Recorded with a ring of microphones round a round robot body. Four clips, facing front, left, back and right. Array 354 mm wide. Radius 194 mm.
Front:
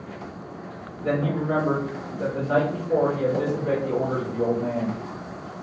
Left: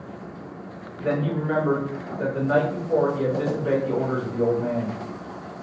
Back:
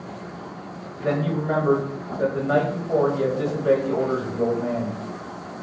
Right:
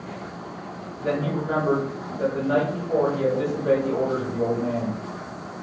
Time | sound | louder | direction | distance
1.0 | a man speaking | left 1 dB, back 1 dB | 170° right | 1.4 m